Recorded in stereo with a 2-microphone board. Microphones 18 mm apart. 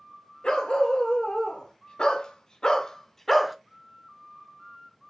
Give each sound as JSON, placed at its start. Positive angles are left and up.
{"t": 0.4, "sound": "a dog barking", "side_deg": 80, "distance_m": 1.6}